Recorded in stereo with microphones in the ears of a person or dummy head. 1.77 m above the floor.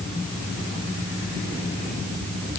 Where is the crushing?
No crushing in this recording.